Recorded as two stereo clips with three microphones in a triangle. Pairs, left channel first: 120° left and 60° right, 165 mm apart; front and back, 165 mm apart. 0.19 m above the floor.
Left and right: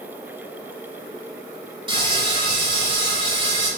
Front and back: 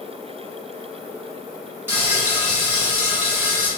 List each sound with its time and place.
1.9 s frying: 110° right, 1.3 m